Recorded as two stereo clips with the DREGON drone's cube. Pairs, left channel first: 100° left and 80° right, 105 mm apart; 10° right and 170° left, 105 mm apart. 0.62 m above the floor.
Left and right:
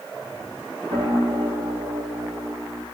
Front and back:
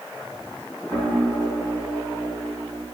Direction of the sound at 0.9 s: 105° right.